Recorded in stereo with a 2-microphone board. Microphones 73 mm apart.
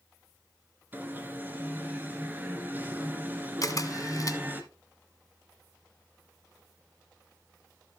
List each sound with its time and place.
0.9 s an alarm: 25° right (ahead or behind), 1.9 m
3.6 s a camera shutter: 50° left (ahead or behind), 1.2 m